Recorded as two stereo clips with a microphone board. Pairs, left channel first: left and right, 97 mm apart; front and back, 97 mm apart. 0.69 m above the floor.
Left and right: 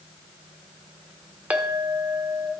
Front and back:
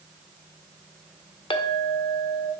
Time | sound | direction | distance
1.5 | a clink | 15° right | 0.9 m